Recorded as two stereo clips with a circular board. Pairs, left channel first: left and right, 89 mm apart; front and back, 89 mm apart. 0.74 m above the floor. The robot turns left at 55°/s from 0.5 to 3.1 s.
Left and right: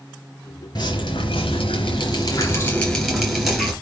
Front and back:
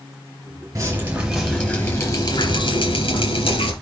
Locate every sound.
0.8 s dripping: 125° left, 5 m; by 3.7 s 5° right, 5 m